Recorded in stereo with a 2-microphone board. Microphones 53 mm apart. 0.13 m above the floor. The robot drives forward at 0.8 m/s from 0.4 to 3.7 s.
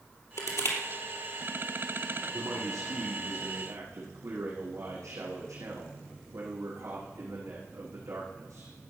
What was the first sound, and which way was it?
Crushing, 65° left (ahead or behind).